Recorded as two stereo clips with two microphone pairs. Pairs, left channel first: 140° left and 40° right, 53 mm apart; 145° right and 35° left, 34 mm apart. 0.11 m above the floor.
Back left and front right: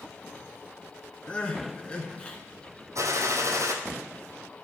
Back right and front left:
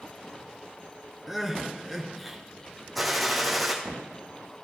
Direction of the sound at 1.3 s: 120° left.